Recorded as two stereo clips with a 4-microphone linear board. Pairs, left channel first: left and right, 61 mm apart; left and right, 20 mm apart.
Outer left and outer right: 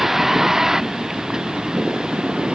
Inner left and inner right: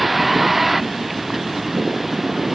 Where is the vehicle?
5° right (ahead or behind); by 2.6 s 15° right (ahead or behind).